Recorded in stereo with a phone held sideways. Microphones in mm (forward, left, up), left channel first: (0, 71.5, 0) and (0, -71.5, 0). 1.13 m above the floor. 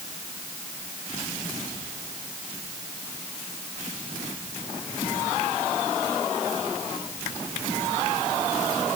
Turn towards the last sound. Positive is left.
No sound to turn to.